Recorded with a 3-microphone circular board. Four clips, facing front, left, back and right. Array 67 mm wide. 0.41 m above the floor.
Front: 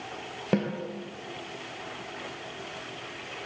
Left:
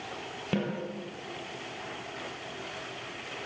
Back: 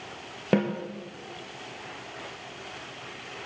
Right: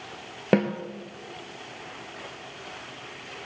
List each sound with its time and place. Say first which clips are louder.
0.5 s a snare drum: right 9 dB, back 3 dB; 100° right, 3 m